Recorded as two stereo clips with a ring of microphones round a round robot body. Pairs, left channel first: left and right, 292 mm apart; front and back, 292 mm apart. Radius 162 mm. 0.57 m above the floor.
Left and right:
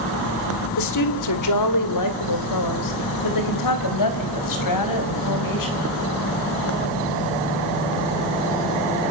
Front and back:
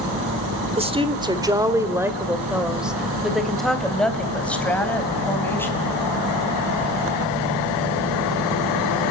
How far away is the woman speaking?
About 1.8 m.